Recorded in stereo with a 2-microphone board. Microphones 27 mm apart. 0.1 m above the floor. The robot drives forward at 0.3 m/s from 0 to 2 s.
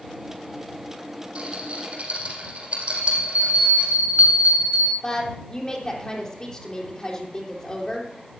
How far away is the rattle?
About 5.5 m.